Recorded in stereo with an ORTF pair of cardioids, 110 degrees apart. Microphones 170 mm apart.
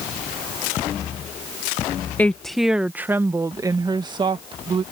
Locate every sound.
2.2 s a woman speaking: 10° left; by 4.8 s 30° right